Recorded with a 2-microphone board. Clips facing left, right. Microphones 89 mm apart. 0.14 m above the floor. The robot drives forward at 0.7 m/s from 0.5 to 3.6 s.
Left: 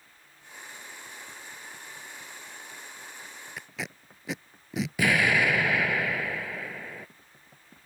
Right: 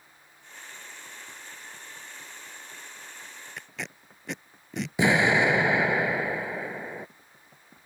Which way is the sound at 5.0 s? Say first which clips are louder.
Right 3 dB; 25° right (ahead or behind).